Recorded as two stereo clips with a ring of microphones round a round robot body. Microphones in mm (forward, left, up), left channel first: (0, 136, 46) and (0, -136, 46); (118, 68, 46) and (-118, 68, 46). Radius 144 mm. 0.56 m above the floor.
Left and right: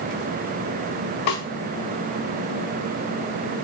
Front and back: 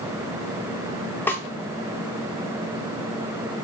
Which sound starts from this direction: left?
A snare drum, at 1.3 s.